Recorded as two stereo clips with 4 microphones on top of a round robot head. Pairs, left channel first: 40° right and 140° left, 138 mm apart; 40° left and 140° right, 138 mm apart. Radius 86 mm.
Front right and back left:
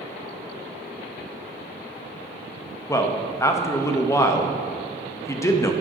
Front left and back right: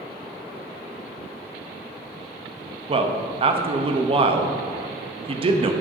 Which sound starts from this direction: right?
A man speaking, at 2.9 s.